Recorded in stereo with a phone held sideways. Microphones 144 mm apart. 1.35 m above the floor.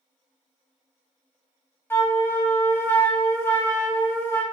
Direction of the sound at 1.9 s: 15° left (ahead or behind).